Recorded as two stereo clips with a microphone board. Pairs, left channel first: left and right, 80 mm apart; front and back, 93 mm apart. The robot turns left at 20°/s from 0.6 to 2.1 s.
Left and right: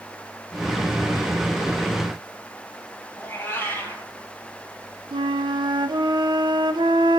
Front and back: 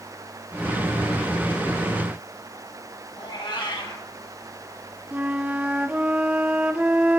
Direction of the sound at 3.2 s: 25° left.